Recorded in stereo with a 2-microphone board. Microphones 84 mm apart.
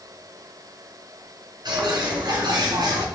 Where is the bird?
60° right (ahead or behind), 3.5 m.